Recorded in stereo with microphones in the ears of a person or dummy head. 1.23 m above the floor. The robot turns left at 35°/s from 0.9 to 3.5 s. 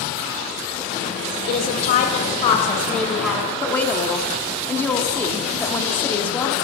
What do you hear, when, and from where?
1.5 s a woman speaking: 65° left, 0.8 m; by 3.5 s 5° right, 0.8 m
3.6 s a woman speaking: 10° left (ahead or behind), 0.6 m